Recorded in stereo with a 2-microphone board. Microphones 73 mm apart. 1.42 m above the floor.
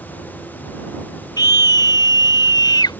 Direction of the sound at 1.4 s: 70° left (ahead or behind).